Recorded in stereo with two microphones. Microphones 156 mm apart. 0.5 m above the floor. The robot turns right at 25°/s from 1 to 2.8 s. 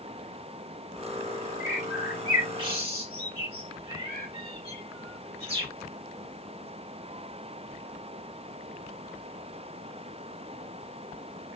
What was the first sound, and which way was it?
A bird, 5° right (ahead or behind).